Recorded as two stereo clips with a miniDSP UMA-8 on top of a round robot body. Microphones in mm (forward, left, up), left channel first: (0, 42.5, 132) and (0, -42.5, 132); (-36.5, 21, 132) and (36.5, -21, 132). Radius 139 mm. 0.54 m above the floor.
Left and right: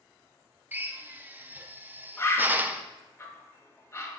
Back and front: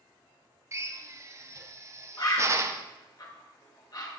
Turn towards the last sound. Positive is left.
turn(degrees=135)